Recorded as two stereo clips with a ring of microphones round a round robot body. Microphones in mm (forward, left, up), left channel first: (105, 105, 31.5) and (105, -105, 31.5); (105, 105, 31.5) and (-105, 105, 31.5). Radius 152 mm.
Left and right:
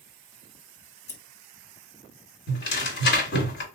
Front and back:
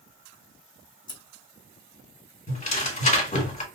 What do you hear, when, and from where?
1.1 s scissors: 50° left, 1.3 m
2.5 s tearing paper: 55° left, 1.9 m